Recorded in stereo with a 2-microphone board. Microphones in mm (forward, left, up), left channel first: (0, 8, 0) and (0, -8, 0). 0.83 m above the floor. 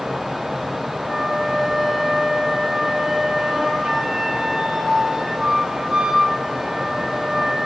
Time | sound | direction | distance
1.1 | a flute | 75° right (ahead or behind) | 2.5 m